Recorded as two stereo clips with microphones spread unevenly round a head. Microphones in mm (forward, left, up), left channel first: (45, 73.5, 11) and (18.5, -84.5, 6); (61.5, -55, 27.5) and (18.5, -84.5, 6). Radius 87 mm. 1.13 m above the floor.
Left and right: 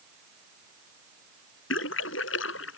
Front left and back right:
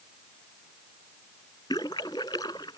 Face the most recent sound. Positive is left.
turn(degrees=90)